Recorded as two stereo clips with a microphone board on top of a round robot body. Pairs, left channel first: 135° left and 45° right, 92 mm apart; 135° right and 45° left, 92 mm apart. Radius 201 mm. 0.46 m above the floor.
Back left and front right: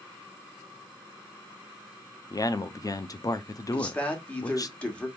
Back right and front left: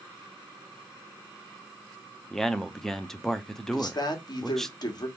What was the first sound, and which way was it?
A man speaking, 140° left.